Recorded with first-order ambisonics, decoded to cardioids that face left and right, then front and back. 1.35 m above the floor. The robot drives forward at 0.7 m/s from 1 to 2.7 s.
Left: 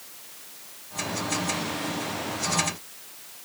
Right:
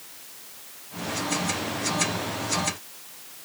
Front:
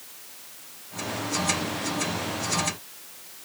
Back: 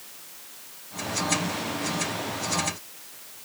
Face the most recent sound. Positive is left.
No sound to turn to.